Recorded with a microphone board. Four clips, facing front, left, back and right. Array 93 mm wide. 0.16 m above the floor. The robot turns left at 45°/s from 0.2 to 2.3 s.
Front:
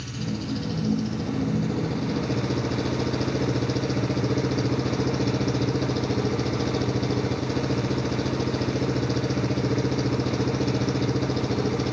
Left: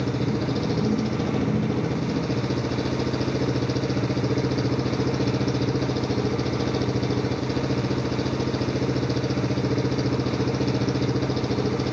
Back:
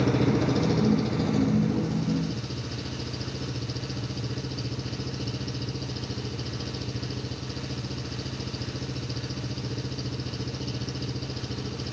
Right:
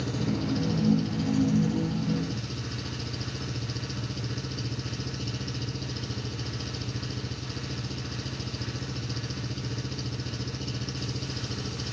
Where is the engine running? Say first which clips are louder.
Left 5 dB, back 8 dB; 150° left; by 11.9 s 55° left.